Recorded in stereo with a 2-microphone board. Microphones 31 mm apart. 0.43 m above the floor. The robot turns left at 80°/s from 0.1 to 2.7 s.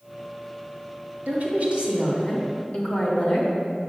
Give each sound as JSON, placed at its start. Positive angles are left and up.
{"t": 1.3, "sound": "a woman speaking", "side_deg": -65, "distance_m": 3.0}